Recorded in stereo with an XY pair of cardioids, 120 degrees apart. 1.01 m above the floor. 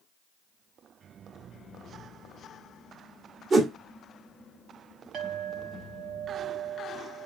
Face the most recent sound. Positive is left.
turn(degrees=-65)